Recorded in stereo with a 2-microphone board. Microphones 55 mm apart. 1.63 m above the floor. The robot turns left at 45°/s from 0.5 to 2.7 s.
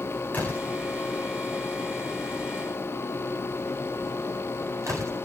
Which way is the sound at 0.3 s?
30° left (ahead or behind).